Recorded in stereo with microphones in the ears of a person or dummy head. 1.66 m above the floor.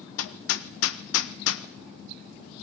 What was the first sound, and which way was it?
Hammering, 75° left (ahead or behind).